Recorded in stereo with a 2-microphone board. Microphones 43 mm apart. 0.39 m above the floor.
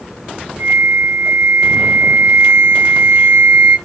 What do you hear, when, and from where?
0.6 s a flute: 45° right (ahead or behind), 1.3 m